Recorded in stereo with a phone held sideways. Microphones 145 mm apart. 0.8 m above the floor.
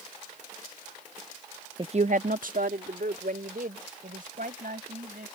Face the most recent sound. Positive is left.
turn(degrees=-70)  # may be behind; listen again after turning